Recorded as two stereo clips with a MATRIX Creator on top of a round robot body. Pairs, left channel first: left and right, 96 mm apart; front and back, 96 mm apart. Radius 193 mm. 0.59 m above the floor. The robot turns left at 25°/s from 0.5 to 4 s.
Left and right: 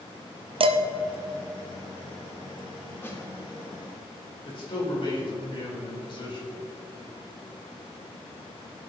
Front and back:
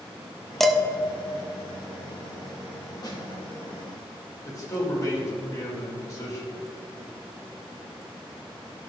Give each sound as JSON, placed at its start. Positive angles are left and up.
{"t": 0.6, "sound": "dishes clattering", "azimuth_deg": -85, "distance_m": 0.6}
{"t": 3.0, "sound": "a snare drum", "azimuth_deg": 30, "distance_m": 2.0}
{"t": 4.5, "sound": "a man speaking", "azimuth_deg": 55, "distance_m": 2.5}